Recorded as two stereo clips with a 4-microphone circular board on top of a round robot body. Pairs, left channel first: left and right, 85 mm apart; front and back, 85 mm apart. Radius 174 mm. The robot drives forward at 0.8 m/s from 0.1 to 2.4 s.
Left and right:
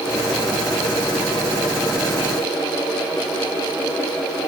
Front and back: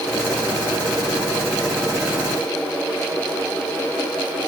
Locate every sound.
Only background noise.